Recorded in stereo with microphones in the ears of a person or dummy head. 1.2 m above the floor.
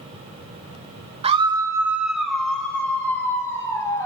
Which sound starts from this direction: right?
A scream, at 1.2 s.